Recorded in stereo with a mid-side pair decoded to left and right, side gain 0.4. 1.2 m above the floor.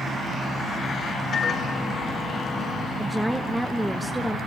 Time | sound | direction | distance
1.3 | a microwave | 50° left | 3 m
3.0 | a woman speaking | 5° right | 1.2 m